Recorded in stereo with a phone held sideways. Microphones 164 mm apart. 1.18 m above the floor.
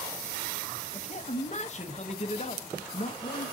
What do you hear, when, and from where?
0.9 s a man speaking: 45° left (ahead or behind), 1.1 m